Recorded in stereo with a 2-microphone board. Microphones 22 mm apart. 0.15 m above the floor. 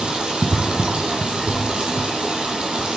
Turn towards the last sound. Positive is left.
turn(degrees=-55)  # may be behind; listen again after turning